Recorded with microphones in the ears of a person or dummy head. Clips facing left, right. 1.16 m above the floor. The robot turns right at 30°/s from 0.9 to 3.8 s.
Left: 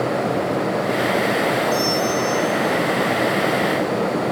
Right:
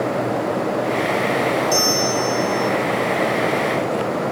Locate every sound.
1.7 s a bell: 105° right, 6 m; by 2.7 s 75° right, 6 m